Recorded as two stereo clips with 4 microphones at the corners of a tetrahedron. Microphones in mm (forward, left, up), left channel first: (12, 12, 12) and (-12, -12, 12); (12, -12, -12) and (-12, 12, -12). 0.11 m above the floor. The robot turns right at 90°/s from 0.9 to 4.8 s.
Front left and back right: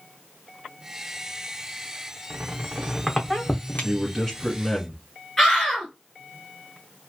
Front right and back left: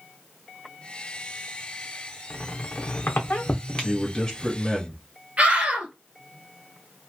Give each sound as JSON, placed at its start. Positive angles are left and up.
{"t": 2.3, "sound": "a squeak", "azimuth_deg": -110, "distance_m": 0.7}
{"t": 3.8, "sound": "a man speaking", "azimuth_deg": -50, "distance_m": 1.2}
{"t": 5.4, "sound": "a scream", "azimuth_deg": 120, "distance_m": 1.6}